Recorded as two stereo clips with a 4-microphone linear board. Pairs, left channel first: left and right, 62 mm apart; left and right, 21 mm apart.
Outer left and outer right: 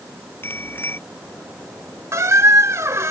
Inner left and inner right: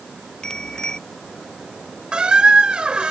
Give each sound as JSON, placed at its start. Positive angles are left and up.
{"t": 0.4, "sound": "a bicycle bell", "side_deg": 35}
{"t": 2.1, "sound": "a squeak", "side_deg": -55}